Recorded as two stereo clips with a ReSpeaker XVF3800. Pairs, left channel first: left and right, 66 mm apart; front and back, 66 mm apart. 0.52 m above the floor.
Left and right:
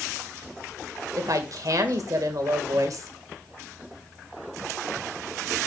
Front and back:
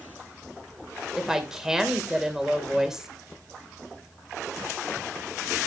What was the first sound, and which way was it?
A woman speaking, 100° right.